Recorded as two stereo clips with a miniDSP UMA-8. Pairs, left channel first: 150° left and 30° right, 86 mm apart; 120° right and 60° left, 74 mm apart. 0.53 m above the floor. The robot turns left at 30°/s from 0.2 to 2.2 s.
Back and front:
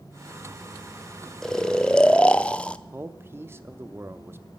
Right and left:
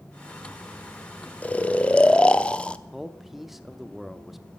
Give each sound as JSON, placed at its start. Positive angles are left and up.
{"t": 1.4, "sound": "snoring", "azimuth_deg": -140, "distance_m": 0.6}
{"t": 2.9, "sound": "a man speaking", "azimuth_deg": -25, "distance_m": 0.7}